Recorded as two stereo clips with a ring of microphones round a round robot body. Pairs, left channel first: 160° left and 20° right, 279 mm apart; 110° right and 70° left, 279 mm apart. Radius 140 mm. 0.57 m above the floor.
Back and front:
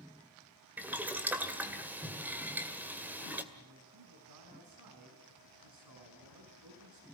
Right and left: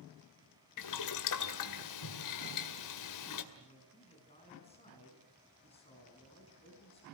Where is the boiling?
105° right, 2 m.